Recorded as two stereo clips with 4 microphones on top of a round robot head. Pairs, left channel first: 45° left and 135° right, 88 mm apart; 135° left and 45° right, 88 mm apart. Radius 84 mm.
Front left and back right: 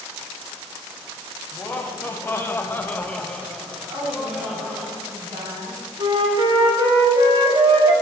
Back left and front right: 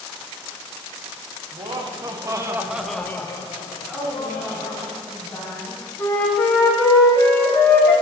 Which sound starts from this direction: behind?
A flute, at 6.0 s.